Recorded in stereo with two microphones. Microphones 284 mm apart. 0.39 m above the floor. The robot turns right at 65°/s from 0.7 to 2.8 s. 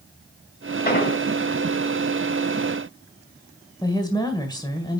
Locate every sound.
0.8 s an explosion: 35° left (ahead or behind), 1.9 m; by 1.2 s 50° left (ahead or behind), 1.9 m
3.8 s a woman speaking: 15° left (ahead or behind), 1.7 m